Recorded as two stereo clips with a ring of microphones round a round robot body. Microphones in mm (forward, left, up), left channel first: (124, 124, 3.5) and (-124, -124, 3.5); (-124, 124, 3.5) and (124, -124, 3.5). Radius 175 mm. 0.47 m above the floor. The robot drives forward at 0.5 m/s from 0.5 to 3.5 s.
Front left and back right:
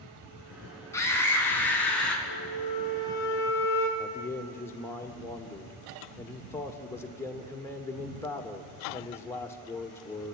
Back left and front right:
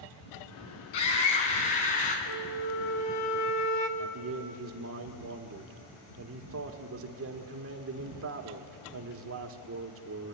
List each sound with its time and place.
0.9 s a scream: 125° left, 5 m; by 2.2 s 130° left, 5.5 m
2.3 s a flute: 110° left, 1.6 m; by 3.9 s 130° left, 1.9 m
4.0 s a man speaking: 35° right, 1.6 m